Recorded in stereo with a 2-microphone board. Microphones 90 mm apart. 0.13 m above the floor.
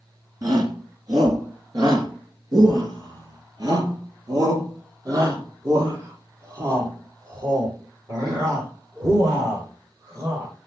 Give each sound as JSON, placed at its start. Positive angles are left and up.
{"t": 0.4, "sound": "a shout", "side_deg": -45, "distance_m": 1.9}